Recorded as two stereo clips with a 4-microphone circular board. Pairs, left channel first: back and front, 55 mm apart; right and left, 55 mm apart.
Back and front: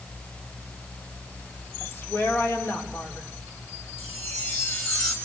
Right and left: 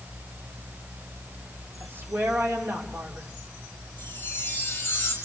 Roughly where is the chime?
Behind right.